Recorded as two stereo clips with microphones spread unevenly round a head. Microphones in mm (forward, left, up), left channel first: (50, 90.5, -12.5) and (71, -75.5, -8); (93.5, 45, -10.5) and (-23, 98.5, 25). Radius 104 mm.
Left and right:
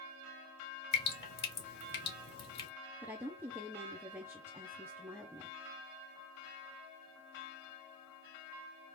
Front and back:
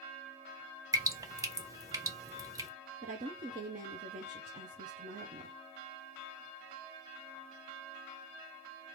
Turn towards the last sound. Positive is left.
turn(degrees=-160)